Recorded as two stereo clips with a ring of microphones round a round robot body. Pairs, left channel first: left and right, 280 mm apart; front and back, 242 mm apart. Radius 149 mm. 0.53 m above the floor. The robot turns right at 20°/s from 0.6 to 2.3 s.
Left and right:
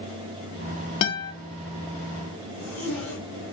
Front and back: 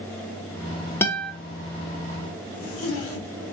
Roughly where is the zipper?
Ahead.